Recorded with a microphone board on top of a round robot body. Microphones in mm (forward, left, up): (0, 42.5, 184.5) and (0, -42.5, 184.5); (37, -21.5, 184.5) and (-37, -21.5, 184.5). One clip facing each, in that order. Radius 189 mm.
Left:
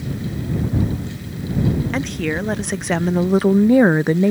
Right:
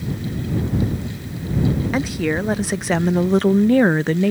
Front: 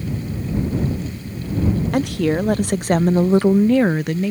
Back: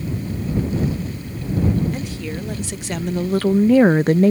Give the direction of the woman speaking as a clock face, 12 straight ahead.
12 o'clock.